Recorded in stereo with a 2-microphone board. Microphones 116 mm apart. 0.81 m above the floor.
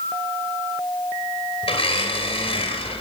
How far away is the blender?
About 2.5 m.